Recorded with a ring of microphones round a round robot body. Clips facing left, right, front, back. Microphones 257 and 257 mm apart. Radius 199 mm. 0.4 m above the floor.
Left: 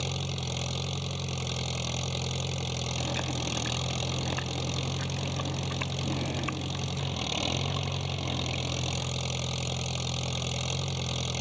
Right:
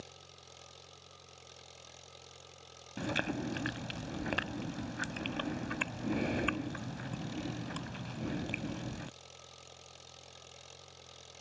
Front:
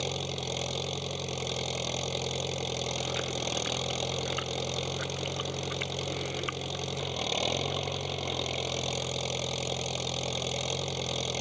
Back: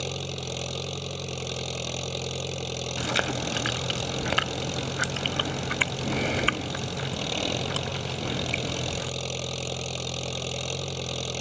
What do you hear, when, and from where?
0.0 s an engine running: 100° left
3.0 s chewing: 170° right